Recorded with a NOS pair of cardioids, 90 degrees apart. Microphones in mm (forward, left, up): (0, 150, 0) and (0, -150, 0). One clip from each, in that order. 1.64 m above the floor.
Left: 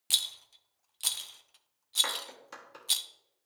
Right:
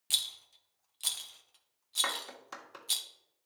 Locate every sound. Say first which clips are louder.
0.1 s a rattle: left 3 dB; 15° left, 0.5 m
2.0 s a clap: even; 15° right, 1.4 m